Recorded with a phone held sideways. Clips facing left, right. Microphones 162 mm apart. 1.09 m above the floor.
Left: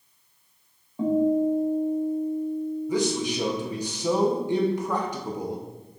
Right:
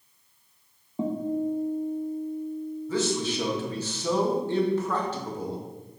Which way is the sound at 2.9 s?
15° left (ahead or behind).